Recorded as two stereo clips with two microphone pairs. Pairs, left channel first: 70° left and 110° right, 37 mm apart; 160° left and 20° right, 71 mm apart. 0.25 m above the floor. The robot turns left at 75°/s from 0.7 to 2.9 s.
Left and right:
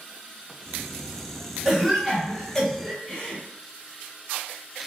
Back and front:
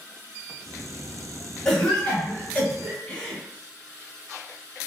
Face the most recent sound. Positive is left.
turn(degrees=120)